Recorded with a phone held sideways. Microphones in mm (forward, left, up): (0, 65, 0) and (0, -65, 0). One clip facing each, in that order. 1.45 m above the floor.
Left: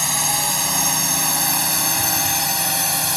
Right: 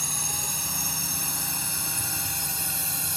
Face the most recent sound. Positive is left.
turn(degrees=85)